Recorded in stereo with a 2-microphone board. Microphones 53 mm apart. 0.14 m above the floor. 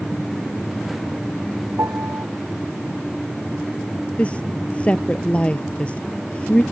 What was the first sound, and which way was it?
A piano, 65° right (ahead or behind).